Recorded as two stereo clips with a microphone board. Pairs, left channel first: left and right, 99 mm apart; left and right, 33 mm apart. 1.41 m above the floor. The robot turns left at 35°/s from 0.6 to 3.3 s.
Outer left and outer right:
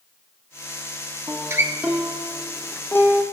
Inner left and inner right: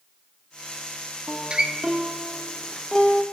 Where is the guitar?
35° right (ahead or behind), 0.7 m; by 3.2 s 30° left (ahead or behind), 0.7 m.